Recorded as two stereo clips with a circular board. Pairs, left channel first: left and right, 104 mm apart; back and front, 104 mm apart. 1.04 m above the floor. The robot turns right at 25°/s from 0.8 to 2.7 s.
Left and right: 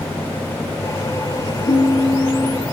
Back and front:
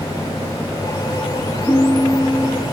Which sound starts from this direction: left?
A ringtone, at 1.7 s.